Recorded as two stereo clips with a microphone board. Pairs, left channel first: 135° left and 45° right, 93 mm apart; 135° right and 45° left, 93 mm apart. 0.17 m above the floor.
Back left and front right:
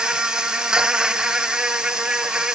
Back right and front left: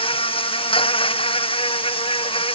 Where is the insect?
125° right.